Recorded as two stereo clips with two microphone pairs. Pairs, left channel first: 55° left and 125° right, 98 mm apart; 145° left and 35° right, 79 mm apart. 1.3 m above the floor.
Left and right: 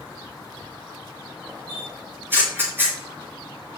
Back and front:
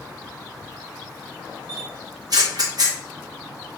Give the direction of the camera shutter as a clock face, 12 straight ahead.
2 o'clock.